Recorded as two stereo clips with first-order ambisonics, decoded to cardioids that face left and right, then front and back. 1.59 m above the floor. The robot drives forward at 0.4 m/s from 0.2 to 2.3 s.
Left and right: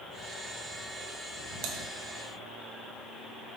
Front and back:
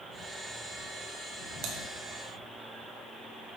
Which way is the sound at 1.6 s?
130° right.